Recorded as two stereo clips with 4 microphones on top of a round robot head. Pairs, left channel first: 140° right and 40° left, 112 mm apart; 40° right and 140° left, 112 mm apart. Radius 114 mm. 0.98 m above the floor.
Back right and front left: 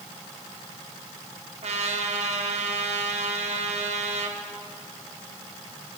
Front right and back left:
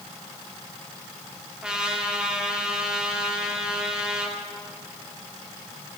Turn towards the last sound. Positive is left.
turn(degrees=60)